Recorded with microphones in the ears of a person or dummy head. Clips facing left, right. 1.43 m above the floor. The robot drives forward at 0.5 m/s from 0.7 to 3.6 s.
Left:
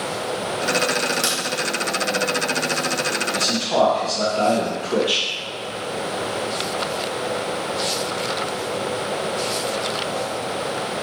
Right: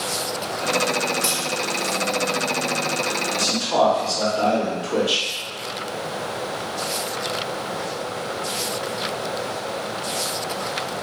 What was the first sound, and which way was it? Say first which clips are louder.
A crack: left 1 dB; 65° left (ahead or behind).